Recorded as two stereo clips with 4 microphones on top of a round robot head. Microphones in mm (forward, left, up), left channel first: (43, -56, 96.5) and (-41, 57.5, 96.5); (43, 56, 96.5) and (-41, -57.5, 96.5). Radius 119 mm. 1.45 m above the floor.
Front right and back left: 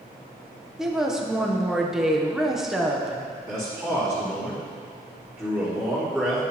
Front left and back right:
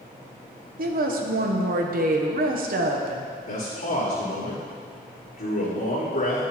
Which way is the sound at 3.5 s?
50° left.